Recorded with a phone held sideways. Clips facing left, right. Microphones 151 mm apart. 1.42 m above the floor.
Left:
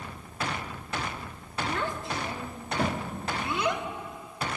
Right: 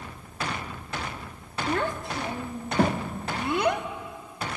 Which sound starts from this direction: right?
A child speaking, at 1.7 s.